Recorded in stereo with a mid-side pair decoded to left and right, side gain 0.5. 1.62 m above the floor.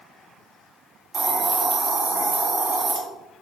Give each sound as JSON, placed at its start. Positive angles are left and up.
{"t": 1.1, "sound": "a hiss", "azimuth_deg": -40, "distance_m": 2.5}